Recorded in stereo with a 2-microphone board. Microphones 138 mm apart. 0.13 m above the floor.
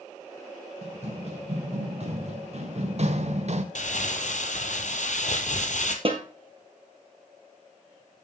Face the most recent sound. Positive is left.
turn(degrees=-40)  # may be behind; listen again after turning